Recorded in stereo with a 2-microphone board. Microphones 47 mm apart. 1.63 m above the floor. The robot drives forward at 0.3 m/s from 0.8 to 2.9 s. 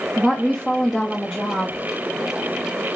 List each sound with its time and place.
0.2 s a woman speaking: centre (ahead or behind), 0.8 m